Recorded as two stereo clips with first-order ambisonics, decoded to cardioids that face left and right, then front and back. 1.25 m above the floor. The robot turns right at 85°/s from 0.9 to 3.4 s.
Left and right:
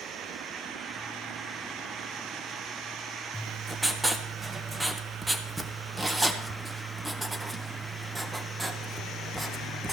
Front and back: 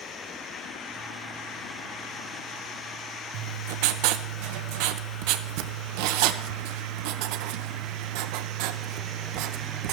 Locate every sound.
3.3 s writing: 175° right, 0.8 m; by 9.9 s 170° right, 0.8 m